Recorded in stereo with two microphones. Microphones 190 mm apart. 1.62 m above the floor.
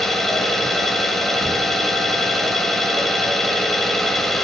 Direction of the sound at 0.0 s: Centre (ahead or behind).